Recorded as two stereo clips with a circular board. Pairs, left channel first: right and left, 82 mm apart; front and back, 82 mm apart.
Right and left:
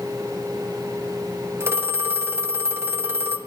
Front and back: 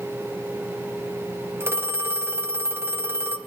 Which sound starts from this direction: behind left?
A phone ringing, at 1.6 s.